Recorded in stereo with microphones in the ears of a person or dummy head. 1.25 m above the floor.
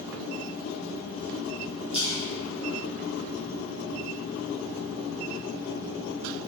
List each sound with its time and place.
1.9 s a splash: 30° left (ahead or behind), 1.2 m